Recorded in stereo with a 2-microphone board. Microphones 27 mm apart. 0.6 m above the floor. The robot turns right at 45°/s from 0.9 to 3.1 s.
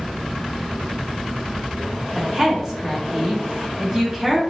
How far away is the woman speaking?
About 1.2 m.